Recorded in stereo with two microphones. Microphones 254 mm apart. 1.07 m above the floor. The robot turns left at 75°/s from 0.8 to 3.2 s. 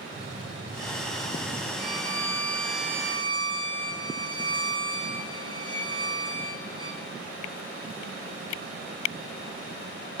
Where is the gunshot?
125° left, 5.5 m; by 1.7 s 60° left, 5.5 m.